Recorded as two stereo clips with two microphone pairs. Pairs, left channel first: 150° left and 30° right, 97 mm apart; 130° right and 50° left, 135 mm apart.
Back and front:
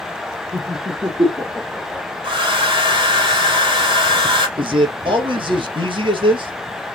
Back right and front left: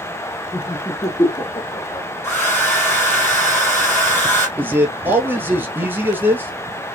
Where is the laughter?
55° right, 3 m; by 2.1 s 100° right, 2.5 m.